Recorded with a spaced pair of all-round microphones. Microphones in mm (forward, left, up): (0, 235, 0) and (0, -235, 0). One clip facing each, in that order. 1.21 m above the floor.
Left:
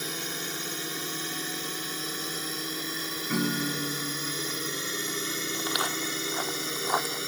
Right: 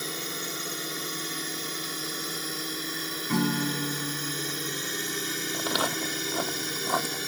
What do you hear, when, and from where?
0.0 s a drone: 5° left (ahead or behind); by 7.3 s 5° right (ahead or behind)
3.3 s a guitar: 15° right (ahead or behind)
5.5 s footsteps: 65° right (ahead or behind); by 7.2 s 45° right (ahead or behind)